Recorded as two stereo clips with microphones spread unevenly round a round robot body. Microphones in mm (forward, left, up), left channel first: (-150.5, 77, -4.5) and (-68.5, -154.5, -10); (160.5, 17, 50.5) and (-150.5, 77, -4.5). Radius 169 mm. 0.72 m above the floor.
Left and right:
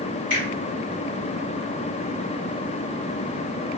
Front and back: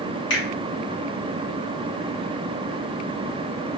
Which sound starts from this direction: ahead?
A finger snap, at 0.3 s.